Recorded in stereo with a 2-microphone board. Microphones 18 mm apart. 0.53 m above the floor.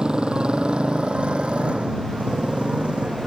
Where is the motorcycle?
60° right (ahead or behind); by 3.3 s 85° right.